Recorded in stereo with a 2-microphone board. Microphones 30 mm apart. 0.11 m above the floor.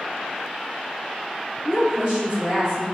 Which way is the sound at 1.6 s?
25° right (ahead or behind).